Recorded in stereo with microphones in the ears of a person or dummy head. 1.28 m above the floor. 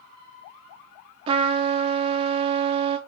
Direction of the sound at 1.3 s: 35° right (ahead or behind).